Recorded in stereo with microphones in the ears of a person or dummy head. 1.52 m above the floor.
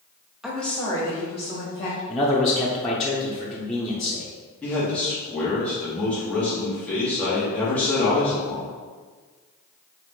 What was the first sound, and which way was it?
A woman speaking, 5° right (ahead or behind).